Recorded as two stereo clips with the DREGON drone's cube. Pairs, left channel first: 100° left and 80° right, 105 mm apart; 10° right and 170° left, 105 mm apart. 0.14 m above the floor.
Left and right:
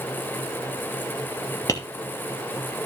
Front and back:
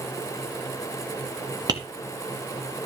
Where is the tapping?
140° left, 2.5 m.